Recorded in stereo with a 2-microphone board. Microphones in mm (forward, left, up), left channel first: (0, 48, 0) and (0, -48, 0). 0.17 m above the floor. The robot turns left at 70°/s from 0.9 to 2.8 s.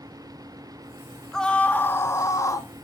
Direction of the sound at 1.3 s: 170° left.